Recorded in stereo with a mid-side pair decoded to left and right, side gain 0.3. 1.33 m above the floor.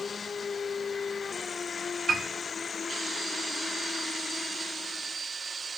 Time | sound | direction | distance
2.1 | a piano | 55° right | 3.5 m